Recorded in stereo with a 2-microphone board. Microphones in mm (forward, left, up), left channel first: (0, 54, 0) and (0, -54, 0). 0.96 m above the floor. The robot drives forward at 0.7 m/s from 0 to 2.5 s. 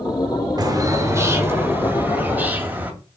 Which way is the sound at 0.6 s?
35° right (ahead or behind).